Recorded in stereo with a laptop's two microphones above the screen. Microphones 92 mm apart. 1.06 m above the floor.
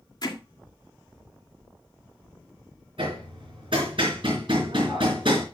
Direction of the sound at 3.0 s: 65° right (ahead or behind).